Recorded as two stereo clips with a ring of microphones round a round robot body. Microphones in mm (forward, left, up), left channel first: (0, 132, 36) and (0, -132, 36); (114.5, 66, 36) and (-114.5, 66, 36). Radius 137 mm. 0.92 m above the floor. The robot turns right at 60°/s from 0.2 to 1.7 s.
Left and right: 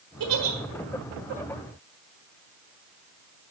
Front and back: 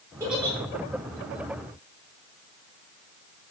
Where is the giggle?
100° right, 1.4 m; by 0.6 s 80° right, 1.4 m.